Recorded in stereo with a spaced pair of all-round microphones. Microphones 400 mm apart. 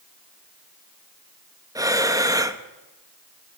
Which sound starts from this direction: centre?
Breathing, at 1.8 s.